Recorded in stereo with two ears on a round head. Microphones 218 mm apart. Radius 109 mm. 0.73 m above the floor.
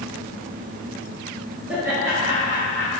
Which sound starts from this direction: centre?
Laughter, at 1.7 s.